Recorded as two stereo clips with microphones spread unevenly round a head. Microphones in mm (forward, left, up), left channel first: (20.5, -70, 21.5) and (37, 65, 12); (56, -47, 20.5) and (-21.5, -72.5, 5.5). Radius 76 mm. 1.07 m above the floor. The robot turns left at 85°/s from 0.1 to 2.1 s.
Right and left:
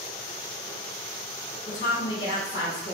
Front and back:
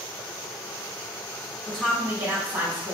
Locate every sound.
1.7 s a woman speaking: 60° right, 1.8 m; by 2.9 s 100° right, 1.8 m